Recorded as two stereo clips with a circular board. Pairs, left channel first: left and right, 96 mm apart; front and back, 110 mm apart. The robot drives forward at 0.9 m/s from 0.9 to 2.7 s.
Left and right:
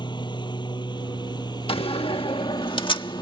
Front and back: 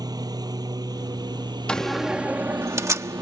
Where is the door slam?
80° left; by 3.2 s 115° left.